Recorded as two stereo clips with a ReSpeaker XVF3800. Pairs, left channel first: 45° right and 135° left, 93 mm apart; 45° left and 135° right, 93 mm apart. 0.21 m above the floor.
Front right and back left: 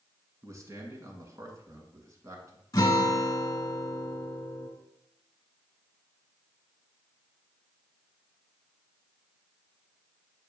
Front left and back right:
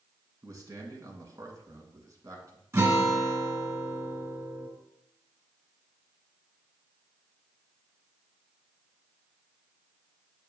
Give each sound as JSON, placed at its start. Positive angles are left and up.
{"t": 0.4, "sound": "a man speaking", "azimuth_deg": 180, "distance_m": 1.7}
{"t": 2.7, "sound": "a guitar", "azimuth_deg": -90, "distance_m": 2.0}